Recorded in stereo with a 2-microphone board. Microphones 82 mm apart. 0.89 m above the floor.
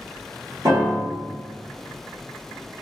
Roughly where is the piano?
Right.